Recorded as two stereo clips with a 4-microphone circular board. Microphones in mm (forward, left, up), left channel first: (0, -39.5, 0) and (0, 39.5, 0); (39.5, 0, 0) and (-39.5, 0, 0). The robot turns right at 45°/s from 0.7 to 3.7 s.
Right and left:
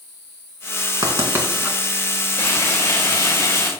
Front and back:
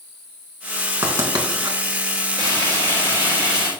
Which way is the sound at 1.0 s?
130° left.